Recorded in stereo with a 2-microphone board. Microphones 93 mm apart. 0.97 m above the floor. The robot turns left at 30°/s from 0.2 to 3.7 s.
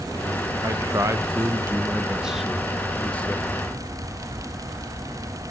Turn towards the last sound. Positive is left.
turn(degrees=145)